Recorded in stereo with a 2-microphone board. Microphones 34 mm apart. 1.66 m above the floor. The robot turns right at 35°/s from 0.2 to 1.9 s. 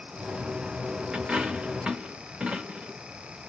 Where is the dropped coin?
30° right (ahead or behind), 1.1 m.